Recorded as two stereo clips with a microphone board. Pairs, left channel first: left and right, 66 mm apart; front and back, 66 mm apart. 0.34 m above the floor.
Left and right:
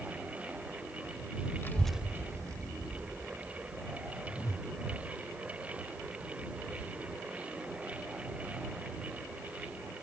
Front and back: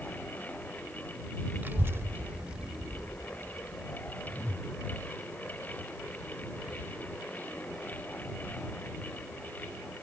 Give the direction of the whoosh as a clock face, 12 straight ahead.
10 o'clock.